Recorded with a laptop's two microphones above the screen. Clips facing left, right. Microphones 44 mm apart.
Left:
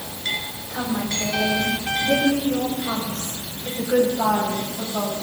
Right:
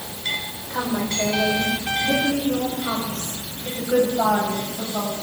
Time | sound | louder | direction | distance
0.7 | a woman speaking | right 1 dB | 80° right | 4.5 m